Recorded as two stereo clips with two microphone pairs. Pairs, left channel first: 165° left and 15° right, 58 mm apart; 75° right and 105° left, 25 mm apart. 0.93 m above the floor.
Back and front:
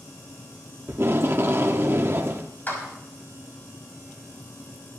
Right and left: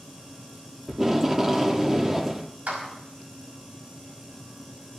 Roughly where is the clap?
Left.